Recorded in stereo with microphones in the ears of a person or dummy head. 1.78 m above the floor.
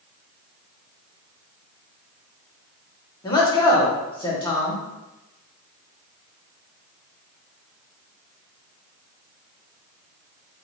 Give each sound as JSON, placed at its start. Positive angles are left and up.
{"t": 3.2, "sound": "a man speaking", "side_deg": 20, "distance_m": 1.3}